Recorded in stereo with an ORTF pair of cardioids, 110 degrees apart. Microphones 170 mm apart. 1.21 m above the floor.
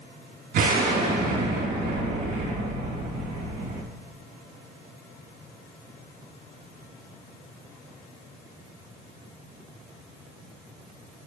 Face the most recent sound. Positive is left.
turn(degrees=-60)